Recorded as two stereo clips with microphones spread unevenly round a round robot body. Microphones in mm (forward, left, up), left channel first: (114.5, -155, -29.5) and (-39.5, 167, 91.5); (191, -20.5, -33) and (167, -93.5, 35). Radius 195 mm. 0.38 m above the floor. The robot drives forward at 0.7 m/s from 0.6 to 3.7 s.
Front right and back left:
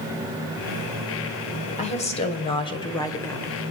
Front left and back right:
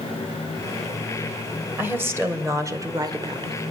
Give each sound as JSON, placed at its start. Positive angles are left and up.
{"t": 1.8, "sound": "a woman speaking", "azimuth_deg": -10, "distance_m": 2.0}